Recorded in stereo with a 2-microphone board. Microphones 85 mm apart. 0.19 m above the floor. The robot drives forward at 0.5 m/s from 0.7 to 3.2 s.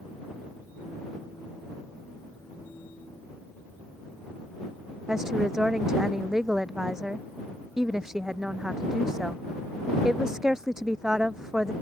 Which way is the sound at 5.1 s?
5° right (ahead or behind).